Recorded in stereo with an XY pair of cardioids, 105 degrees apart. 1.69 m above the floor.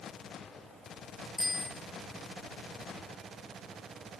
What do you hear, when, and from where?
1.4 s a bicycle bell: 10° left, 2.5 m